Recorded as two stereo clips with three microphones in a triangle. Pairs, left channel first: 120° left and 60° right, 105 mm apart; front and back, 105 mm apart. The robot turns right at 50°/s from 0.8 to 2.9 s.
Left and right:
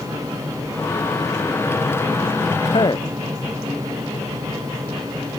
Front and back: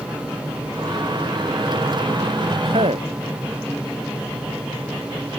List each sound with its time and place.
2.6 s a man speaking: 150° left; by 3.1 s 165° left